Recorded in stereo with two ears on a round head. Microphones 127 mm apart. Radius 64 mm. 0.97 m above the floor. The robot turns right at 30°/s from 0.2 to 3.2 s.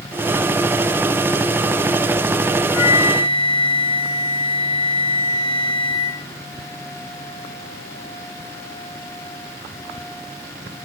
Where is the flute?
60° left (ahead or behind), 4.5 m; by 6.2 s 45° left (ahead or behind), 4.5 m.